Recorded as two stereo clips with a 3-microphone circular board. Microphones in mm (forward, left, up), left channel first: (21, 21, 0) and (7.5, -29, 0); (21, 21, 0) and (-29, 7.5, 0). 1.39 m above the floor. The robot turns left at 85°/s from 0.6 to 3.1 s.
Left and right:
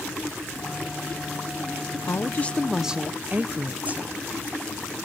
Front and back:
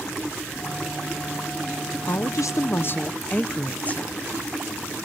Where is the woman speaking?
45° left, 0.7 m; by 4.2 s 45° right, 0.7 m.